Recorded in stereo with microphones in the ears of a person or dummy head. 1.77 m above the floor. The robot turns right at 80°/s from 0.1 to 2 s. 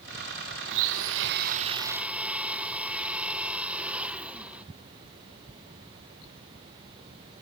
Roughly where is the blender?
Behind right.